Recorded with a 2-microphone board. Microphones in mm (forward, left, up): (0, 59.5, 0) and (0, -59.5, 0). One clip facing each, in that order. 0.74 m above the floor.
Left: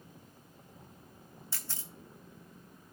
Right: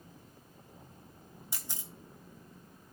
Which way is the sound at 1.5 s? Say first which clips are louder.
Right 1 dB; 20° right (ahead or behind).